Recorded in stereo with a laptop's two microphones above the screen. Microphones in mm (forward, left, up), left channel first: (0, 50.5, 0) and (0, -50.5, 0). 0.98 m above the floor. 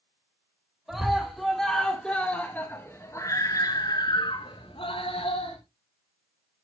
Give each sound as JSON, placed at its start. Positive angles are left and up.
{"t": 0.9, "sound": "a scream", "side_deg": -5, "distance_m": 3.0}